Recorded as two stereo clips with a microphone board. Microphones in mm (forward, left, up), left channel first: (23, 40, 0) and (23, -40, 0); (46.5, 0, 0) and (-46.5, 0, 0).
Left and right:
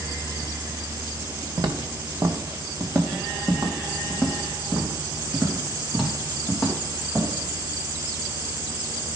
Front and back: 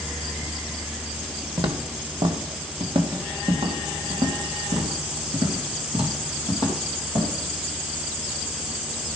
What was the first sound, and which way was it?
Footsteps, 130° right.